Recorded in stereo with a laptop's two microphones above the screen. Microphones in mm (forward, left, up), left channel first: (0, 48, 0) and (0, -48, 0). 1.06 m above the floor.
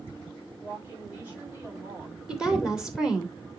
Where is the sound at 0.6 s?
15° right (ahead or behind), 6.5 m; by 2.2 s 20° right (ahead or behind), 9 m.